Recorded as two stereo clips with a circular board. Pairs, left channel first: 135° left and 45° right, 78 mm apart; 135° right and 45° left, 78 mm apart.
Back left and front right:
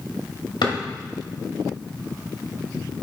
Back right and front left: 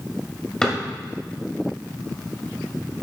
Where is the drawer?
145° left, 1.9 m.